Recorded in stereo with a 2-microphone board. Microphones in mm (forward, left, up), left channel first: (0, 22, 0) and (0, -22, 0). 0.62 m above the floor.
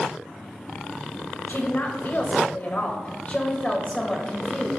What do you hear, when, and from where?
1.5 s a woman speaking: 50° left (ahead or behind), 3.5 m; by 4.7 s 10° left (ahead or behind), 3.5 m